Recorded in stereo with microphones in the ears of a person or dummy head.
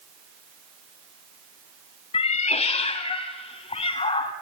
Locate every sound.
2.1 s a cat meowing: 40° left (ahead or behind), 1.3 m; by 4.3 s 35° left (ahead or behind), 2.5 m